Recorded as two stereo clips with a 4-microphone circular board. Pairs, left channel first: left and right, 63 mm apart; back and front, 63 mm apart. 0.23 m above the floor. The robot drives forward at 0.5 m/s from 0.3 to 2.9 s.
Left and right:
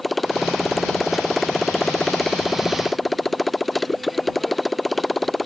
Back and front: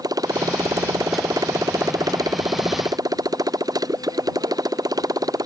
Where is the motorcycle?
5° left.